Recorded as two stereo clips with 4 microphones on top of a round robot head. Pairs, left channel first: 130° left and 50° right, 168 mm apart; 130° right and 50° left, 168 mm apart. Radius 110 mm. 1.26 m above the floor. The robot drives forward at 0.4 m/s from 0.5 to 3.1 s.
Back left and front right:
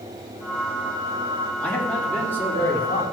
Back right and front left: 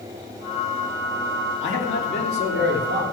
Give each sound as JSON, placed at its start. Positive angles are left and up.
{"t": 1.6, "sound": "a man speaking", "azimuth_deg": -145, "distance_m": 3.0}